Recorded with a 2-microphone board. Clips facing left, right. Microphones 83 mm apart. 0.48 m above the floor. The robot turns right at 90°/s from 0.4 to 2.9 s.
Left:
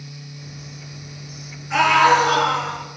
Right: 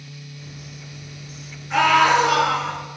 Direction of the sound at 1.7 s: Straight ahead.